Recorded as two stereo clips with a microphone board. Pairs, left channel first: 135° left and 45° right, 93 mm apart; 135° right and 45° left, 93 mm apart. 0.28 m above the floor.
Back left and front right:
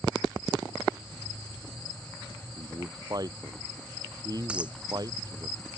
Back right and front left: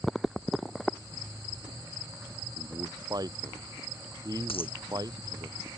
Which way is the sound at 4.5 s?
125° right.